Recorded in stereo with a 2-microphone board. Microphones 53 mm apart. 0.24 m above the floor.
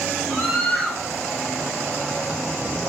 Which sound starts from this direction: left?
A scream, at 0.3 s.